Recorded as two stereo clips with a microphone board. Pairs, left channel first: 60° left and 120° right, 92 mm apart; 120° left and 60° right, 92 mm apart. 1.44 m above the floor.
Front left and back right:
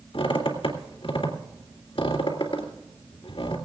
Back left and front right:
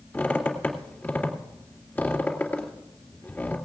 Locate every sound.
0.1 s a squeak: 45° left, 2.5 m